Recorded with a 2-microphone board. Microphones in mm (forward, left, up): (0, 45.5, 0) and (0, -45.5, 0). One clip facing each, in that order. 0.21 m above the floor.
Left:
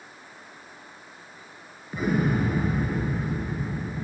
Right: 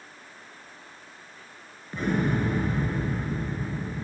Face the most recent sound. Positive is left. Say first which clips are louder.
# left 1 dB
turn(degrees=10)  # may be behind; listen again after turning